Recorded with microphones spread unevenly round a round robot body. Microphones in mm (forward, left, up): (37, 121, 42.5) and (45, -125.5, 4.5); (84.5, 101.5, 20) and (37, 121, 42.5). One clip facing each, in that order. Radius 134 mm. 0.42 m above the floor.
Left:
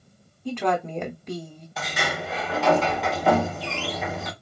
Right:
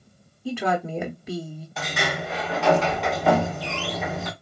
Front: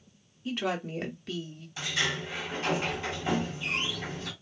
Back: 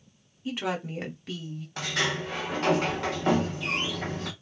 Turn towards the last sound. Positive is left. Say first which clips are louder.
# right 1 dB, back 2 dB
turn(degrees=-170)